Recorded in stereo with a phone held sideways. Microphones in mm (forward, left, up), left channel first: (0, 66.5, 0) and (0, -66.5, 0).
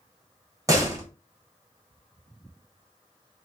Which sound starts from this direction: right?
A door slam, at 0.7 s.